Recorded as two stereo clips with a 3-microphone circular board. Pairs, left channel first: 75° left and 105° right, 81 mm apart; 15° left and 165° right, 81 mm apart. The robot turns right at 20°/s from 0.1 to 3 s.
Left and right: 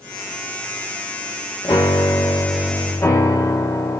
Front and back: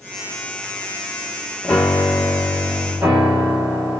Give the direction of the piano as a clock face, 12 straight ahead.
9 o'clock.